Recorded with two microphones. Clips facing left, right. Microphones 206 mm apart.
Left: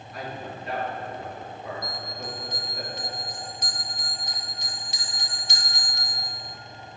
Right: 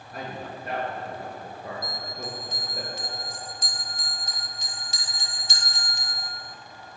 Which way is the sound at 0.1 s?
60° right (ahead or behind).